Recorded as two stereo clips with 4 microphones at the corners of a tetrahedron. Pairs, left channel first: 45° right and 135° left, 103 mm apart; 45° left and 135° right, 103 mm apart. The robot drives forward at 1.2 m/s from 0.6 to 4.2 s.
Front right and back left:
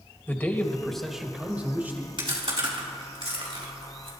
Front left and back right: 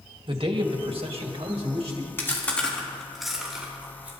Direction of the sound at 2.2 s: 110° left.